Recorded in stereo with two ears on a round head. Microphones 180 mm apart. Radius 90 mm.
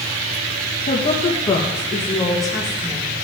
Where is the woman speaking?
40° left (ahead or behind), 1.1 m; by 3.1 s 10° right (ahead or behind), 1.9 m.